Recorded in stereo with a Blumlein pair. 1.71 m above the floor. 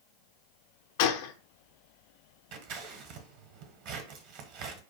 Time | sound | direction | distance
1.0 | a gunshot | 50° left | 0.6 m
2.5 | scissors | 45° right | 1.2 m